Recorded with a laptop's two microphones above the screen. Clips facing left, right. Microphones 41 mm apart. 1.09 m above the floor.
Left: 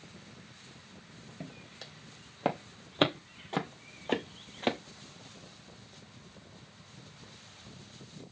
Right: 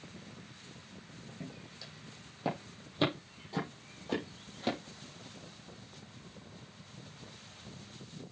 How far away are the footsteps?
About 2.5 m.